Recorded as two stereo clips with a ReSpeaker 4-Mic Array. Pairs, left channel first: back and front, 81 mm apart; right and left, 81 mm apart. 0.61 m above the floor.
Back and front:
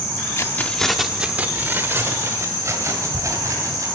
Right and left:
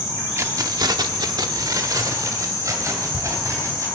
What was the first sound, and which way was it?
Keys jangling, 135° left.